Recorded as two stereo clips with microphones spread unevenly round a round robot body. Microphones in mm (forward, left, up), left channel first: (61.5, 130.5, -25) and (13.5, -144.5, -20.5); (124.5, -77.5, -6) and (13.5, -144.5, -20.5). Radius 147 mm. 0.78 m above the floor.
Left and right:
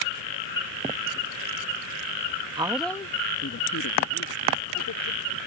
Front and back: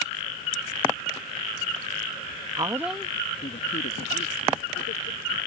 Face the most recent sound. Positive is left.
turn(degrees=45)